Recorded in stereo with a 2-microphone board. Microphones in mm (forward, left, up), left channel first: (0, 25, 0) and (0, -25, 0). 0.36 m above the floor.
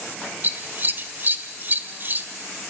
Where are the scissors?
40° right (ahead or behind), 1.4 m.